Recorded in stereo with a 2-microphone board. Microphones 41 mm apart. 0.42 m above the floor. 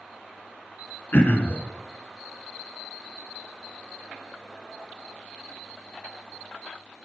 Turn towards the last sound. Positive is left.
turn(degrees=50)  # may be behind; listen again after turning